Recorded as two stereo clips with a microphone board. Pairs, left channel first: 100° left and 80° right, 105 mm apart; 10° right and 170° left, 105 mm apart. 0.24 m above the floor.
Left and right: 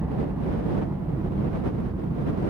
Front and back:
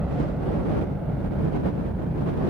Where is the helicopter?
120° right; by 2.5 s 100° right.